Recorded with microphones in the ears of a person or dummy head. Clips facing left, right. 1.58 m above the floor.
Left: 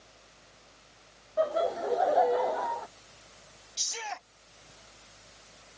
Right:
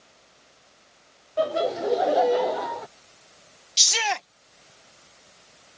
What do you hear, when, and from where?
0.0 s a fan: 70° left (ahead or behind)
1.4 s laughter: 35° right (ahead or behind)
3.8 s a shout: 85° right